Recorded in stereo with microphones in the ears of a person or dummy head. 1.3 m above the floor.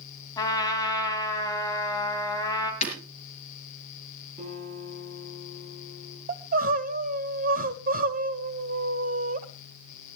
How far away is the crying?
About 1.3 m.